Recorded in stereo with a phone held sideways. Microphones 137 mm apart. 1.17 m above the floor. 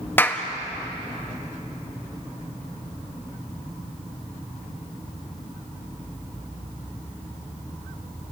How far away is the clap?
About 1.6 m.